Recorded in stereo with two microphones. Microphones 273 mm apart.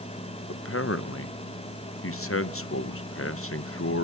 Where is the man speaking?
50° left (ahead or behind), 0.8 m.